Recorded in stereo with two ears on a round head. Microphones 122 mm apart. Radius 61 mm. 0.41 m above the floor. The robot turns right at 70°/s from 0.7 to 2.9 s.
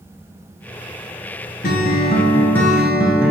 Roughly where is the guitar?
Left.